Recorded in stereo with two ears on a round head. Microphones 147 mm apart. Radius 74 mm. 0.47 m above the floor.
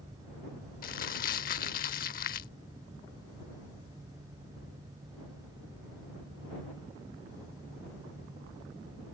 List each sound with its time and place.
0.8 s crumpling: 55° left (ahead or behind)